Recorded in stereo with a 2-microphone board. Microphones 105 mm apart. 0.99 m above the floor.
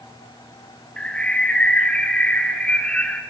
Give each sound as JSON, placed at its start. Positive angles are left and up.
{"t": 1.0, "sound": "a bird", "side_deg": 10, "distance_m": 0.6}